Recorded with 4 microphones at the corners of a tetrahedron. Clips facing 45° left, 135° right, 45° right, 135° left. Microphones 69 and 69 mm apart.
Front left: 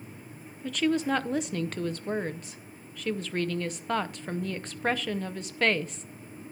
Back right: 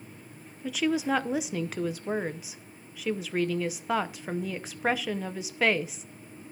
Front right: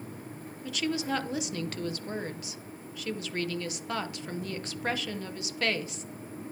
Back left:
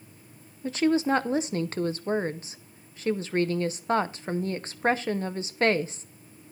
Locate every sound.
0.6 s a woman speaking: 145° left, 0.6 m